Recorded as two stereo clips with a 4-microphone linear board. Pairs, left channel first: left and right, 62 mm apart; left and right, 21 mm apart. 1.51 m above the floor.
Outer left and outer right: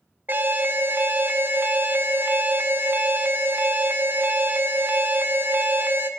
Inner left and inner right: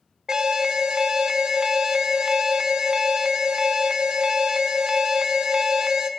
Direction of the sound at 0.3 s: 35° right (ahead or behind).